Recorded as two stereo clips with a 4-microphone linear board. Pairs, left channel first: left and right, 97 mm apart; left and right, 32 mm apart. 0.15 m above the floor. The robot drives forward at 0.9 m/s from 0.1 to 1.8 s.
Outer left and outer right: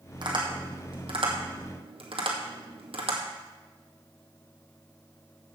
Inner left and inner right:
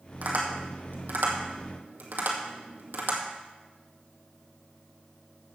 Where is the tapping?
55° right (ahead or behind), 2.5 m; by 3.2 s 80° right, 1.9 m.